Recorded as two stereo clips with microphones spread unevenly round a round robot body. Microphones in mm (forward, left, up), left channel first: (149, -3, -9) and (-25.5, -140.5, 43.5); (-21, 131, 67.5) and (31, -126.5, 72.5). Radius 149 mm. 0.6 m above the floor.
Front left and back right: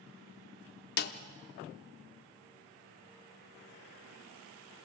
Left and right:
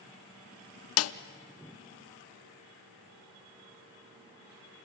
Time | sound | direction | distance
1.0 | a snare drum | 75° left | 0.6 m